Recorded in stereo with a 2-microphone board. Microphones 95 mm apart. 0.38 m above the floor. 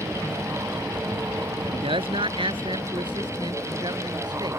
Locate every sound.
1.6 s a man speaking: 75° right (ahead or behind); by 4.6 s 45° right (ahead or behind)